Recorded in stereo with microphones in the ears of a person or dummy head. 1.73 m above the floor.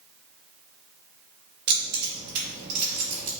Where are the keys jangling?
60° right (ahead or behind), 1.7 m.